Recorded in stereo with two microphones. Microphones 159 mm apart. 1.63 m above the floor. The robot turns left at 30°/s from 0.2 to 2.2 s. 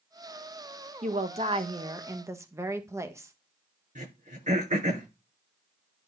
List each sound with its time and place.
1.0 s a woman speaking: 125° right, 1.5 m; by 3.3 s 160° right, 1.5 m
4.0 s throat clearing: 50° right (ahead or behind), 7.5 m